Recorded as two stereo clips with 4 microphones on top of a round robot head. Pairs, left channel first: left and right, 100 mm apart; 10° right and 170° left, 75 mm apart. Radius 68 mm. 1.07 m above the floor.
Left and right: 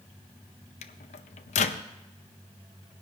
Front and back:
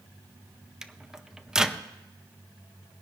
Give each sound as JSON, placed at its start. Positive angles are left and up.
{"t": 0.8, "sound": "a microwave", "azimuth_deg": 90, "distance_m": 0.5}